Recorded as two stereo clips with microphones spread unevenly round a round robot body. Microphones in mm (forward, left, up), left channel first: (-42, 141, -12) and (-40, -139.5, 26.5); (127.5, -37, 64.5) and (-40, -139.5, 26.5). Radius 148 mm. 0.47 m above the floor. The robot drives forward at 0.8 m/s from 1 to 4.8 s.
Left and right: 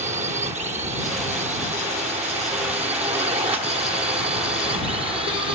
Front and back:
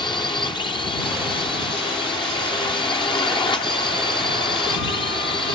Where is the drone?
35° right; by 5.5 s 25° right.